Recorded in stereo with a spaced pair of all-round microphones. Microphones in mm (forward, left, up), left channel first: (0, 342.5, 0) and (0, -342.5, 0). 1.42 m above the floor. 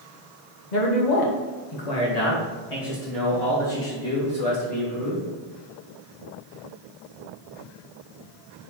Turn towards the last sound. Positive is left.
turn(degrees=40)  # may be behind; listen again after turning